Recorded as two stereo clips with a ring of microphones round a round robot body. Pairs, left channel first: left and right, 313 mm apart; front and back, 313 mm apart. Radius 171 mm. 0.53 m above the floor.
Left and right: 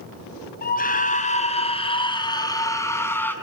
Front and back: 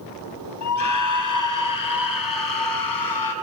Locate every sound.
0.6 s a scream: 30° left, 4.5 m; by 3.3 s 5° left, 6 m